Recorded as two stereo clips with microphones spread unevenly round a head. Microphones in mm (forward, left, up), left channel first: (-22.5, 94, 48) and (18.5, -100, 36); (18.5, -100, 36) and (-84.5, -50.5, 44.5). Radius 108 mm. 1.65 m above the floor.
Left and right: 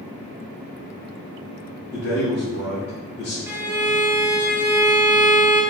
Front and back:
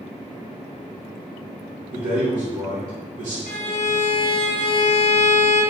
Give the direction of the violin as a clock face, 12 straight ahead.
12 o'clock.